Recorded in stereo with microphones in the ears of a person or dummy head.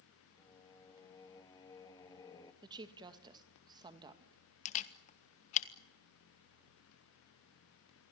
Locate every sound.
0.4 s singing: 15° left (ahead or behind), 2.5 m
2.6 s a woman speaking: 25° right (ahead or behind), 2 m
4.7 s a camera shutter: 35° left (ahead or behind), 1.6 m